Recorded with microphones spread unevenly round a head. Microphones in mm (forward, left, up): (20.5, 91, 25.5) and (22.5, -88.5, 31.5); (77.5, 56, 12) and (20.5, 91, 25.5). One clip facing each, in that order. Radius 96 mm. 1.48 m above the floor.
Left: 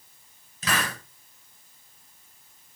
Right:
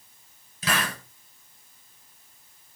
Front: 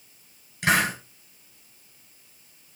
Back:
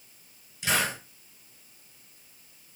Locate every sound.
0.6 s a hiss: 5° right, 9 m